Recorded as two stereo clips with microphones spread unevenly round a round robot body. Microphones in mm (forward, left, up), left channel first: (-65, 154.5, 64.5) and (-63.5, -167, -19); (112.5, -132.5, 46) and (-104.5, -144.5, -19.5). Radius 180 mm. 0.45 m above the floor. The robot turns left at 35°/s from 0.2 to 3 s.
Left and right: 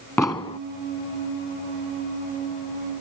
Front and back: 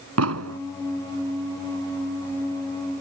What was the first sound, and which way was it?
An explosion, 175° left.